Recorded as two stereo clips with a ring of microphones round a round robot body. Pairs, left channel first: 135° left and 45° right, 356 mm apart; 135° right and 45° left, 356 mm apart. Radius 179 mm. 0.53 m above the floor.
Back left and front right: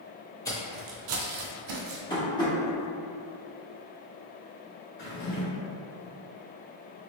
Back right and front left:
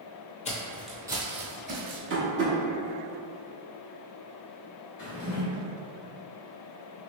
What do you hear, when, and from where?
0.5 s footsteps: 165° right, 0.5 m; by 2.0 s 20° right, 1.1 m
2.1 s tapping: 65° left, 0.8 m
5.0 s a drawer: 160° right, 1.3 m